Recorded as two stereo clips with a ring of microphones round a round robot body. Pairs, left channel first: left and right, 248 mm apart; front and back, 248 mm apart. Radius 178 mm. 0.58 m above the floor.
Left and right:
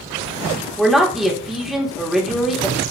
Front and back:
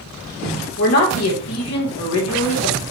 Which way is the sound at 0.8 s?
Straight ahead.